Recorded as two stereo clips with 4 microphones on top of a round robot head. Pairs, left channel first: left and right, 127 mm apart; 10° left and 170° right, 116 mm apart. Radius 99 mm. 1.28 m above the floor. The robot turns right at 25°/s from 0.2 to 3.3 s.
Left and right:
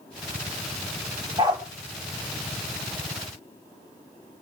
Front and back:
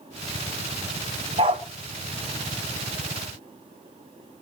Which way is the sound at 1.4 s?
145° right.